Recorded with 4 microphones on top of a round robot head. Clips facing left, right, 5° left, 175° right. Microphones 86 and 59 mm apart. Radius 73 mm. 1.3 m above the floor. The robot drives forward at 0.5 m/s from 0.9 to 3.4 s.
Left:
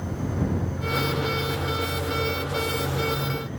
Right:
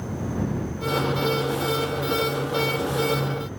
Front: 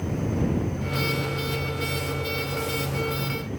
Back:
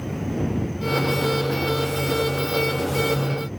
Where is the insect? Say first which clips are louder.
Even, even; 10° left, 7.5 m.